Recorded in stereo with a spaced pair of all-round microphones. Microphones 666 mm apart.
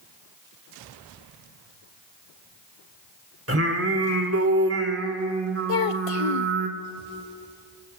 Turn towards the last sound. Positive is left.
turn(degrees=55)  # may be behind; listen again after turning